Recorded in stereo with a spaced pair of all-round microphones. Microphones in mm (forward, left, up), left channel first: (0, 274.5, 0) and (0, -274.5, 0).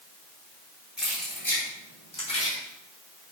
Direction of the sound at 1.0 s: Centre (ahead or behind).